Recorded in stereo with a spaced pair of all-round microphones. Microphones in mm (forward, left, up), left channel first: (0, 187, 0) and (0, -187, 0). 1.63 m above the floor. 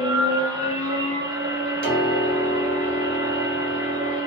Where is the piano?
20° left (ahead or behind), 2 m.